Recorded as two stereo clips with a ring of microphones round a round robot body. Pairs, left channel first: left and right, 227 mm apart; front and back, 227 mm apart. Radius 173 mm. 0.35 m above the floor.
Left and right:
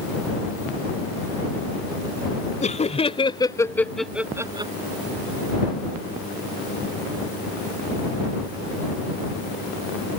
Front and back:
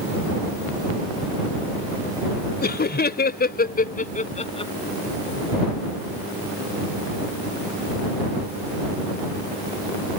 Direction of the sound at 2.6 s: 35° left.